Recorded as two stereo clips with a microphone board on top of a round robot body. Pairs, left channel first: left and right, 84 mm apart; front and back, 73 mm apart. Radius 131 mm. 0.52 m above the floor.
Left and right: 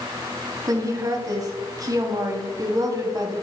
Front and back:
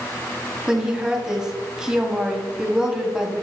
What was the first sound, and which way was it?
A woman speaking, 100° right.